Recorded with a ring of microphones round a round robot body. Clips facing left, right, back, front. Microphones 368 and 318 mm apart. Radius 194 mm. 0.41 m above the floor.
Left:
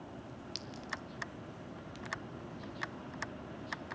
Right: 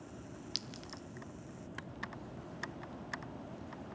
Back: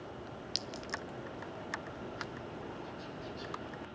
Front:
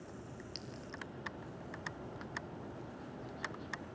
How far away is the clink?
About 1.2 m.